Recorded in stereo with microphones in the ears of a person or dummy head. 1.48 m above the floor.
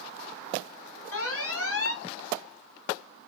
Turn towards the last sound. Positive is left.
turn(degrees=75)  # may be behind; listen again after turning